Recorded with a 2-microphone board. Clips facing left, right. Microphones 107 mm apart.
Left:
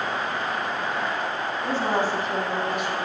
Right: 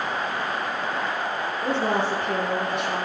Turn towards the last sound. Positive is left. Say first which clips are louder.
# even
turn(degrees=-70)  # may be behind; listen again after turning